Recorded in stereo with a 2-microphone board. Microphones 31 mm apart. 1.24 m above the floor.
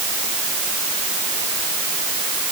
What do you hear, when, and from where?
Only background noise.